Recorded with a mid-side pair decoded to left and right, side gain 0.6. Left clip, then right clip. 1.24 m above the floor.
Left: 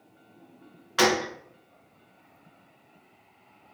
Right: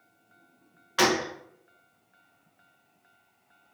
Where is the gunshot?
10° left, 0.7 m.